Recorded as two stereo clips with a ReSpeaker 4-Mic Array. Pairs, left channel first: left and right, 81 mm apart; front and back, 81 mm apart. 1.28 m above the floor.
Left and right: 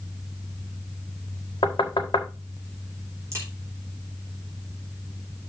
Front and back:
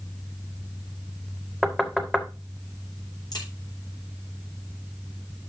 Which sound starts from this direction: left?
Knocking, at 1.6 s.